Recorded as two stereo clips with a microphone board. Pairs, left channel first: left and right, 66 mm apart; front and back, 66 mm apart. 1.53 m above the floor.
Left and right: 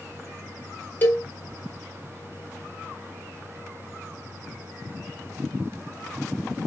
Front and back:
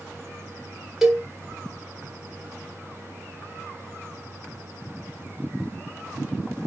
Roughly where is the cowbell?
Left.